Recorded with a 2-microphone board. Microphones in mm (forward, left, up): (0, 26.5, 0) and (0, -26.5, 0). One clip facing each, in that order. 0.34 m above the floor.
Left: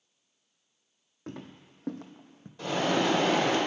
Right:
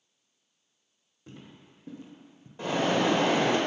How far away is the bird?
About 1.4 m.